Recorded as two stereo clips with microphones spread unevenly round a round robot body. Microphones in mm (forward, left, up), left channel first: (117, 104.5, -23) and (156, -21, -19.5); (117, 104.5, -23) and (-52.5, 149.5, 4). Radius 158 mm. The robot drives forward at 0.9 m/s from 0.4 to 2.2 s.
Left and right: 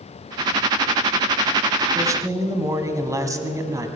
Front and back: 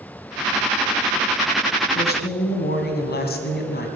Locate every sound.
1.9 s a woman speaking: 5° right, 2.5 m; by 3.9 s 10° right, 2 m